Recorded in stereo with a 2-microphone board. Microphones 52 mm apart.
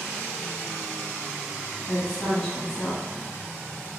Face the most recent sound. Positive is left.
turn(degrees=10)  # may be behind; listen again after turning